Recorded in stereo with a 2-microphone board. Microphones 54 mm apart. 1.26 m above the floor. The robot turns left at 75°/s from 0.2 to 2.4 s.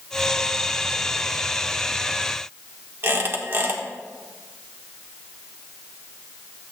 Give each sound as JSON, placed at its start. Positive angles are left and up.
{"t": 3.0, "sound": "a squeak", "side_deg": -45, "distance_m": 1.6}